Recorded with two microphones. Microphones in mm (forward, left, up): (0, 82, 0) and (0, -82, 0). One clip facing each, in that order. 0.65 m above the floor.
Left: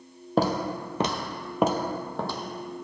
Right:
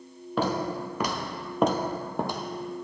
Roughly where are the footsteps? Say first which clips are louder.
Left 2 dB; left.